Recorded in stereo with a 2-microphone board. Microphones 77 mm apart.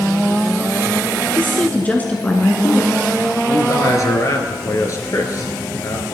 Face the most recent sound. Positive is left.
turn(degrees=45)  # may be behind; listen again after turning